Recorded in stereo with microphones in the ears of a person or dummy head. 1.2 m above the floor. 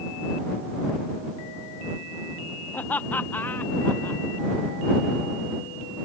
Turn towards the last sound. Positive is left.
turn(degrees=10)  # may be behind; listen again after turning